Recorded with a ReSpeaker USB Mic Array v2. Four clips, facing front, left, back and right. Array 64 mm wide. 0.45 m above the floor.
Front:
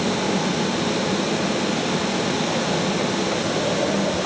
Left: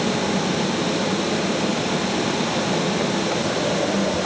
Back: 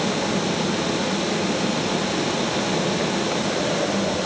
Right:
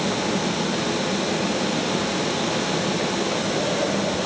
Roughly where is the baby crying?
No baby crying in this recording.